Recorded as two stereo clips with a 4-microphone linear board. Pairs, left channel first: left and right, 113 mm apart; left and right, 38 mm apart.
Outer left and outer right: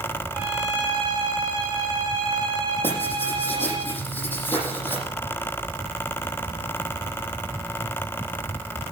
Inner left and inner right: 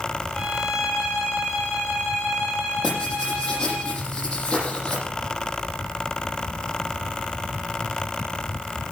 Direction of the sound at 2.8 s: 20° left (ahead or behind).